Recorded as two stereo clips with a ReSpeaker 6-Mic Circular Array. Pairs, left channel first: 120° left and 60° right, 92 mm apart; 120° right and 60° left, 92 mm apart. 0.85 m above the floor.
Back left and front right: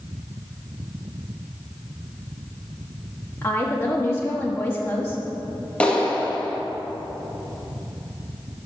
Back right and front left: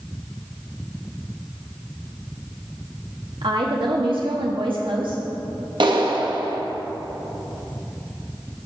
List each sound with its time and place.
3.4 s a woman speaking: 60° left, 0.9 m
5.8 s a clap: 45° left, 0.8 m